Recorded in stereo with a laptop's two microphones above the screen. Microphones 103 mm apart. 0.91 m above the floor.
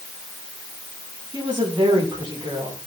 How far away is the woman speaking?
About 7 m.